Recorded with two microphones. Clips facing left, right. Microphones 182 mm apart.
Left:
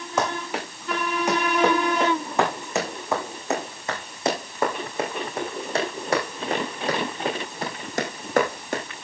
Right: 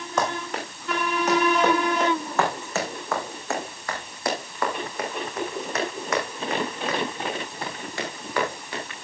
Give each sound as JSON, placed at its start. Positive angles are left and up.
{"t": 0.2, "sound": "running footsteps", "side_deg": 10, "distance_m": 7.0}